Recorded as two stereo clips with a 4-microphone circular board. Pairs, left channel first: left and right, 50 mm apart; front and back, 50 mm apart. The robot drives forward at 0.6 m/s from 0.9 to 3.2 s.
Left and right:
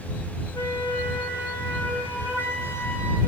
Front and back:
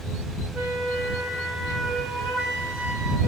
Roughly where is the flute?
Left.